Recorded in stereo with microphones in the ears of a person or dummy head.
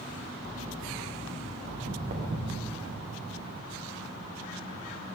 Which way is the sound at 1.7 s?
60° right (ahead or behind).